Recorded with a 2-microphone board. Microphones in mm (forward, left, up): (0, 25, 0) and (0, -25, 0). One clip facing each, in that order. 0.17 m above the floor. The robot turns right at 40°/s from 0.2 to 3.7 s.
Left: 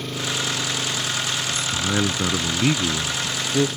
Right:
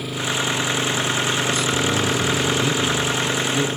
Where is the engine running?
175° right; by 3.8 s 35° right.